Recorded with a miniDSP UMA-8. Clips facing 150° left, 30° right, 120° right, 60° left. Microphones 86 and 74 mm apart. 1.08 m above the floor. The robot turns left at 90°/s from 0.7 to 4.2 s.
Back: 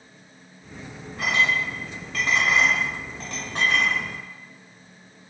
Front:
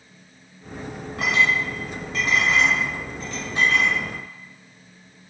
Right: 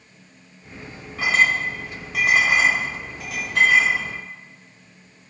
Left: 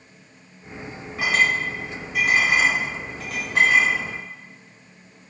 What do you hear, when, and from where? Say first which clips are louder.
1.2 s a clink: front 2 dB, right 2 dB; 10° right, 1.2 m; by 4.0 s 100° left, 1.2 m